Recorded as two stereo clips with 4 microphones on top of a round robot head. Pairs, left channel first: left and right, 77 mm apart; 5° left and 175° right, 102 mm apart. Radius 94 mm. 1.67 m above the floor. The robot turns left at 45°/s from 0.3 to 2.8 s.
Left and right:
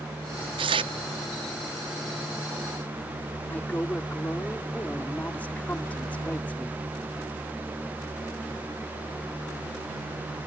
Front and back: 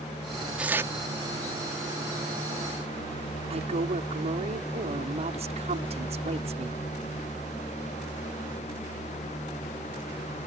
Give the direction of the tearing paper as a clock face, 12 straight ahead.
3 o'clock.